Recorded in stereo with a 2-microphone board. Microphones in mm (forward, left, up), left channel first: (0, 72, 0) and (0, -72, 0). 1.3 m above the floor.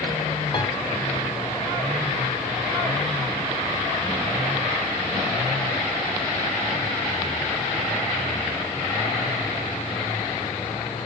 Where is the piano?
30° left (ahead or behind), 2.5 m.